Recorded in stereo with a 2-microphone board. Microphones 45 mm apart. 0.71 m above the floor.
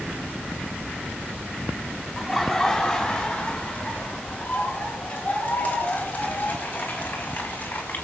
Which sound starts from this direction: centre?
Laughter, at 2.2 s.